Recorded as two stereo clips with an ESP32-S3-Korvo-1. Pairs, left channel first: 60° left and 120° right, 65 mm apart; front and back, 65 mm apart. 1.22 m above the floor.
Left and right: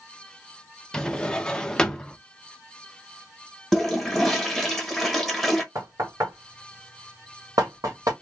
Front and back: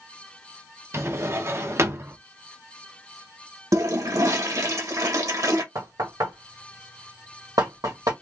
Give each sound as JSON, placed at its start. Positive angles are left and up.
{"t": 0.9, "sound": "a drawer", "azimuth_deg": 135, "distance_m": 0.6}
{"t": 3.7, "sound": "a toilet flushing", "azimuth_deg": 145, "distance_m": 1.1}
{"t": 5.8, "sound": "knocking", "azimuth_deg": -155, "distance_m": 1.6}